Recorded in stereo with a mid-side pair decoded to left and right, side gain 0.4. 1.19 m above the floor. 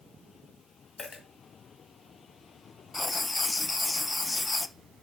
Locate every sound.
1.0 s a dropped coin: 45° left, 2.5 m
2.9 s writing: 20° left, 0.6 m